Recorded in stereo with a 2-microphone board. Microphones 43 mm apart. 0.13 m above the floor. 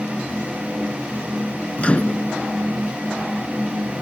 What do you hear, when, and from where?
1.8 s a microwave: 30° left (ahead or behind)